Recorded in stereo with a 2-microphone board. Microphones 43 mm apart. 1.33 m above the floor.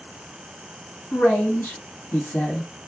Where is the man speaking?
85° left, 1.6 m.